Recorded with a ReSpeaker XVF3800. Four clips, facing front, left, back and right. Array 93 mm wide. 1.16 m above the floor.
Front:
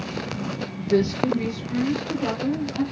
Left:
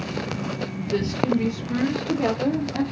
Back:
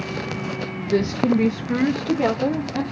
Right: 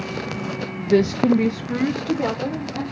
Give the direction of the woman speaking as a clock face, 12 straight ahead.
2 o'clock.